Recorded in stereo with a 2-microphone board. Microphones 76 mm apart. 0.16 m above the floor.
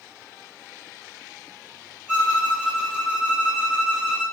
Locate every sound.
2.1 s a violin: 15° left (ahead or behind), 1.5 m